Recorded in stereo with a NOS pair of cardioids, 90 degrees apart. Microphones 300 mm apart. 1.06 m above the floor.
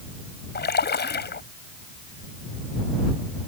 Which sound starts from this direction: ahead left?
A splash, at 0.6 s.